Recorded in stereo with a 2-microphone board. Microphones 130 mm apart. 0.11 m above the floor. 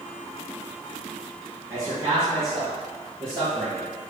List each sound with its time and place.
1.7 s a man speaking: 20° right (ahead or behind), 1.4 m; by 3.9 s 40° right (ahead or behind), 3 m